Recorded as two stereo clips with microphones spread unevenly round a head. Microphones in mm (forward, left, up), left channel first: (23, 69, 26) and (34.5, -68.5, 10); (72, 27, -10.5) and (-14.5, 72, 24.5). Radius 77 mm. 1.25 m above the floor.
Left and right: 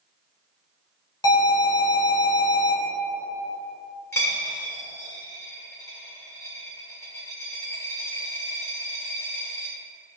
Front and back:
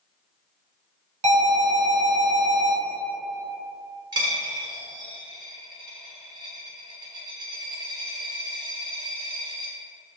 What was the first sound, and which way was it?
An alarm, 155° left.